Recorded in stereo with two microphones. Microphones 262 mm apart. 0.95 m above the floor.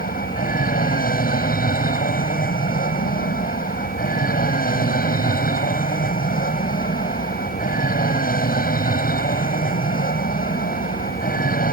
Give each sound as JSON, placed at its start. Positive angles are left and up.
{"t": 0.0, "sound": "an aircraft", "side_deg": 35}